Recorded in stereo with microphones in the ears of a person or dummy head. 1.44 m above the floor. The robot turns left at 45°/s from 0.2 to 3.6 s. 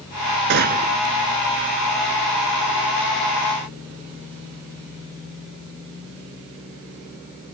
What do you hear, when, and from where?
0.5 s a gunshot: 55° right (ahead or behind); by 1.0 s 35° right (ahead or behind)